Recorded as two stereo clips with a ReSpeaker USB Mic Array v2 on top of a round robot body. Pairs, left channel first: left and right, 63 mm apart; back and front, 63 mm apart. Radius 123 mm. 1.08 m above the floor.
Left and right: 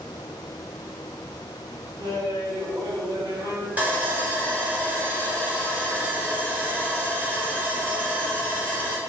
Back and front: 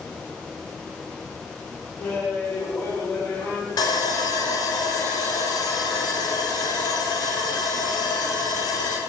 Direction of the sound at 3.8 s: 155° right.